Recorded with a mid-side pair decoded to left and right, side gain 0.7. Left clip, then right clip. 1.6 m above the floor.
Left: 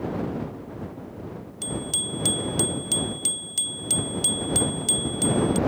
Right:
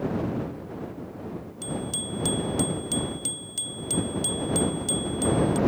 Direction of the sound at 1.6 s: 25° left.